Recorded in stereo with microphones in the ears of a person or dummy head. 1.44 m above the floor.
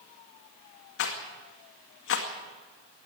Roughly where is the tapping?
I don't hear tapping.